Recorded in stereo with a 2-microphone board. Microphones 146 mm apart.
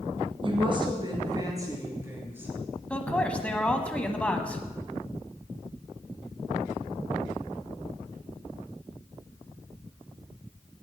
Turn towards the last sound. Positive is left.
turn(degrees=10)  # may be behind; listen again after turning